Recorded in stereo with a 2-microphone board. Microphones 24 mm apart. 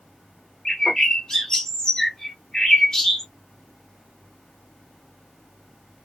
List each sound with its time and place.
0.7 s a bird: 20° left (ahead or behind), 1.3 m